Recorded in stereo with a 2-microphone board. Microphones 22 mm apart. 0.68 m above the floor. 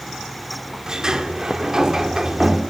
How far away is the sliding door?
About 1.3 m.